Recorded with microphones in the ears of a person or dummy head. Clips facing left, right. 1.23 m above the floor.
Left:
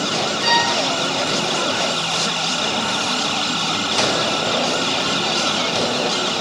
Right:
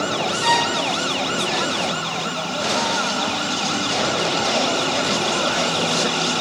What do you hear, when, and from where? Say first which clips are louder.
0.4 s a violin: even; 15° left (ahead or behind), 4 m